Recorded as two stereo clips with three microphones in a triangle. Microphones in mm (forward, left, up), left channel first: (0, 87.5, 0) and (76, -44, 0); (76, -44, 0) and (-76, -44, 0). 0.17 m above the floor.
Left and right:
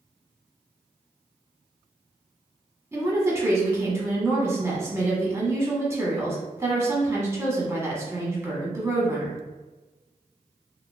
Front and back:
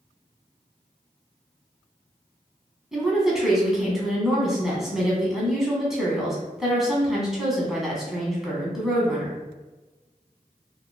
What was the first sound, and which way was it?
A woman speaking, 95° right.